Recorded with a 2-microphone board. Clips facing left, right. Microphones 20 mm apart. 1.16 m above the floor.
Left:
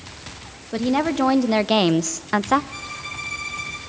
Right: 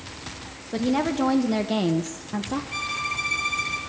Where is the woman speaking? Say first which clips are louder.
Left 3 dB; 10° left (ahead or behind), 1.5 m; by 2.6 s 60° left (ahead or behind), 0.6 m.